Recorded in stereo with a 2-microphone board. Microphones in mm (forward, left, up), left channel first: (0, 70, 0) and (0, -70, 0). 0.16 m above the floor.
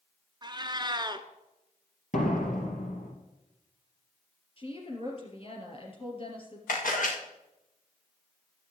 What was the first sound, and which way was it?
A cat meowing, 30° right (ahead or behind).